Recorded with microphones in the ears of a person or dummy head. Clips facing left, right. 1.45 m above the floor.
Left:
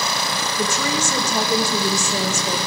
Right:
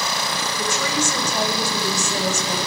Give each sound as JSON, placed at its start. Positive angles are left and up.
{"t": 0.6, "sound": "a woman speaking", "side_deg": 80, "distance_m": 1.5}